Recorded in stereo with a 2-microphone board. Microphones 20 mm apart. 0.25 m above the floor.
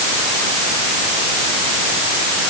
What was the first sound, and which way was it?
Only background noise.